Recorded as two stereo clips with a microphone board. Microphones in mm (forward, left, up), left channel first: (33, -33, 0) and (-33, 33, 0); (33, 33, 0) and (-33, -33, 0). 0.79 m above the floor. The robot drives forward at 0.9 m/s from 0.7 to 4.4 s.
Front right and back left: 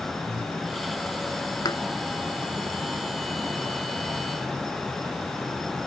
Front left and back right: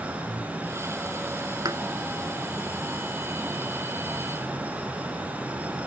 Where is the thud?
90° right.